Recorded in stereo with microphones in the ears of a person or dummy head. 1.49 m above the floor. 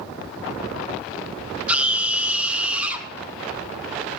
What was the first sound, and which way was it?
A scream, 10° right (ahead or behind).